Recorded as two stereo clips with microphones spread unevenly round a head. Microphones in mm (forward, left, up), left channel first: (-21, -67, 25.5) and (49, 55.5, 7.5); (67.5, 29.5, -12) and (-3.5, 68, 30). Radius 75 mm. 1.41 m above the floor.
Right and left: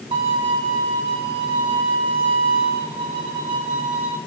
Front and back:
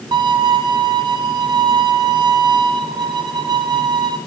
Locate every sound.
0.1 s a violin: 120° left, 2 m